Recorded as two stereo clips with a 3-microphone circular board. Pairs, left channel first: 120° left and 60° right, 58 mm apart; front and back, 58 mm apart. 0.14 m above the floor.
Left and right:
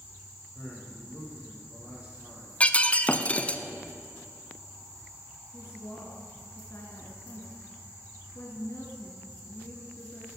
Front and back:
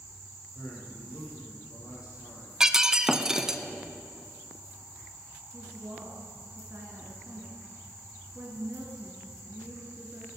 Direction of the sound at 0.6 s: 10° left.